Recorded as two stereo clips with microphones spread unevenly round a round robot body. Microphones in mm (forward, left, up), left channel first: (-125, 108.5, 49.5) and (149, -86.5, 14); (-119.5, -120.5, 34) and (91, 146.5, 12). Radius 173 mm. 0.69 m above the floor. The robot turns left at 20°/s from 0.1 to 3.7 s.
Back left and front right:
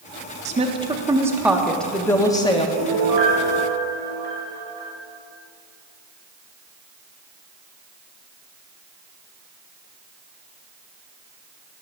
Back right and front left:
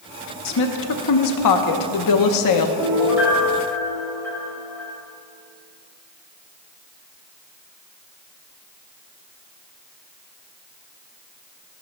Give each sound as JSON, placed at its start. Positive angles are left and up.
{"t": 0.5, "sound": "a woman speaking", "azimuth_deg": -95, "distance_m": 0.9}
{"t": 2.8, "sound": "a piano", "azimuth_deg": -25, "distance_m": 3.0}